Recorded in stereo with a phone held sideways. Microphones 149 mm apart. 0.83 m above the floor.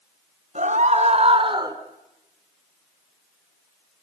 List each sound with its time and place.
0.6 s a scream: 55° right (ahead or behind), 3.5 m; by 1.8 s 25° right (ahead or behind), 1.9 m